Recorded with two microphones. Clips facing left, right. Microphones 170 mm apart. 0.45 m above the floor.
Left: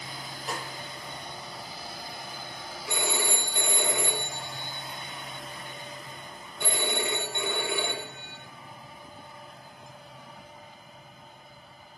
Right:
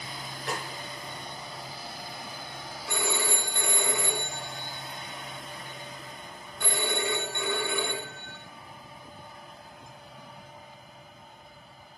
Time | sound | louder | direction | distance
0.5 | a snare drum | right 1 dB | 75° right (ahead or behind) | 5.5 m
2.9 | a phone ringing | even | 15° left (ahead or behind) | 3 m